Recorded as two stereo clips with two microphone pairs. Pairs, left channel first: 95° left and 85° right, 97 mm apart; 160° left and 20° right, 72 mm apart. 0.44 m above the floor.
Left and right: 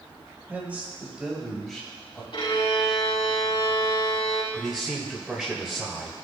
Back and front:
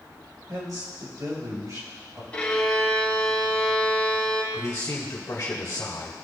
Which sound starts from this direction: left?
A violin, at 2.3 s.